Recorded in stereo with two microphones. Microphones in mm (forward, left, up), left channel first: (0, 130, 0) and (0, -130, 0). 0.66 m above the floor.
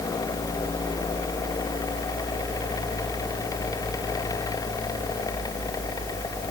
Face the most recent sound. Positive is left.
No sound to turn to.